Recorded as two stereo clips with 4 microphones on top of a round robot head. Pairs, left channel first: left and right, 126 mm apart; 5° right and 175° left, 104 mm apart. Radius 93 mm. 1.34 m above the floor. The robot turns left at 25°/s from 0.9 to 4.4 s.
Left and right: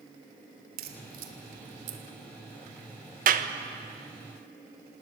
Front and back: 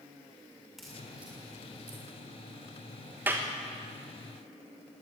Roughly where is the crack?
Right.